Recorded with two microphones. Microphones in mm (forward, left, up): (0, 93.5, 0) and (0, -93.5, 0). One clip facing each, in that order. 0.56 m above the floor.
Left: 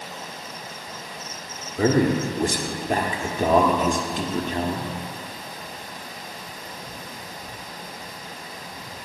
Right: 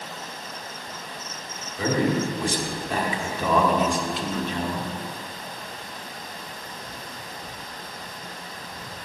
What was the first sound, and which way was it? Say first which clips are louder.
A man speaking: left 4 dB; 45° left (ahead or behind).